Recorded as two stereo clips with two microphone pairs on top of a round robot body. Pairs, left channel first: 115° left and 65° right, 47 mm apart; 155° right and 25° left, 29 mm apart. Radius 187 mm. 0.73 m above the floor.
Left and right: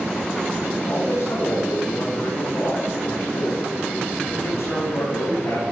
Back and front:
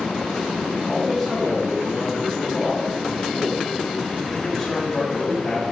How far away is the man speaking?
About 5.5 m.